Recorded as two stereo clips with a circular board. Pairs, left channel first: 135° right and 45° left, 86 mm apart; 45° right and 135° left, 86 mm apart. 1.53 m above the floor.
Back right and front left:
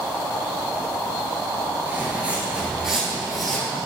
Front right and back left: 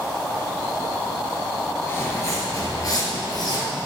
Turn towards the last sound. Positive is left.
turn(degrees=-50)